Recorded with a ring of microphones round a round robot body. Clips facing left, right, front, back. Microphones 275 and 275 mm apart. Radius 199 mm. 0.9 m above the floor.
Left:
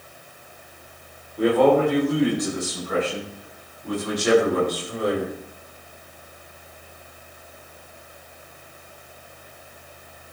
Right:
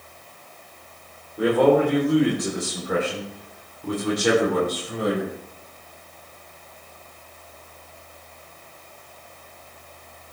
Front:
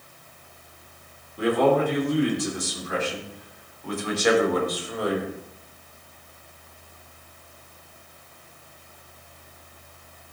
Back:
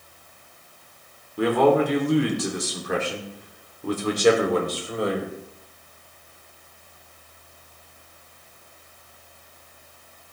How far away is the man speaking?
About 2.5 m.